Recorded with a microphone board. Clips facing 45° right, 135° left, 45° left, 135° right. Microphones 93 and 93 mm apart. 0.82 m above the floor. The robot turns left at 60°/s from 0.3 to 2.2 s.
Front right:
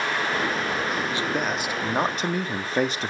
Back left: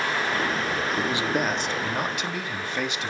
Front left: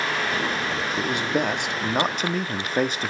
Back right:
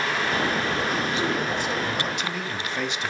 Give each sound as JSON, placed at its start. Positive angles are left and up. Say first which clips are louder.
{"t": 1.0, "sound": "a man speaking", "louder": "back left 1 dB, front left 1 dB", "azimuth_deg": 75, "distance_m": 1.5}